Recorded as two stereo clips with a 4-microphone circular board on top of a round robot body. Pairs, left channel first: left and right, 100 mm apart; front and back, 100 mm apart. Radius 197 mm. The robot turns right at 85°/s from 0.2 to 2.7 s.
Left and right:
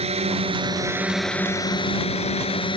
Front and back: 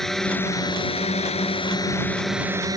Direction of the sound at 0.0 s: 85° right.